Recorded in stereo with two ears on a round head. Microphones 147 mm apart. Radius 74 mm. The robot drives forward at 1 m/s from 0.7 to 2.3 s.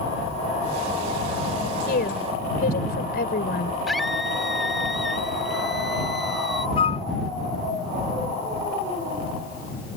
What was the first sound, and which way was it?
A woman speaking, 60° left (ahead or behind).